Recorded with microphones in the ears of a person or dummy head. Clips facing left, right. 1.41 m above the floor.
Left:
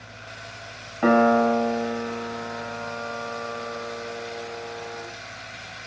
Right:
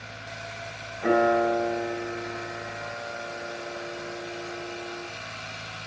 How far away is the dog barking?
I don't hear a dog barking.